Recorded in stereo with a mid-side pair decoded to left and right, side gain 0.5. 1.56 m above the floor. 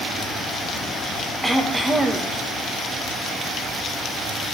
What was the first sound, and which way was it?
Throat clearing, 10° right.